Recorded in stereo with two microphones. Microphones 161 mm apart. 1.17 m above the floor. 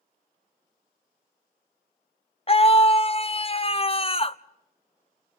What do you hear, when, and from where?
2.5 s a scream: 35° left (ahead or behind), 0.6 m